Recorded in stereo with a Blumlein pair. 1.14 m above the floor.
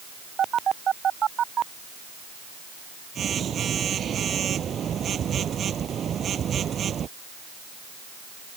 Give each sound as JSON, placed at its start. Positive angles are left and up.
{"t": 0.4, "sound": "a phone buzzing", "azimuth_deg": -25}